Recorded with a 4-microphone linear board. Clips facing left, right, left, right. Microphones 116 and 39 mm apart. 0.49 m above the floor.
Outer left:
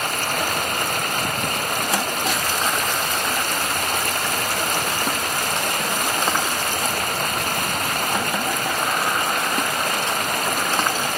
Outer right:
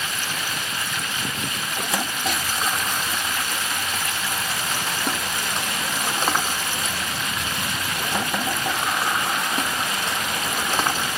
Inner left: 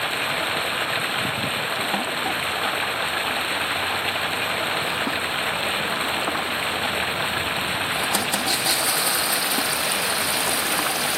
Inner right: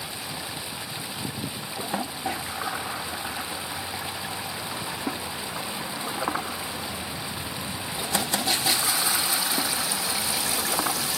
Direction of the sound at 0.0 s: 55° left (ahead or behind).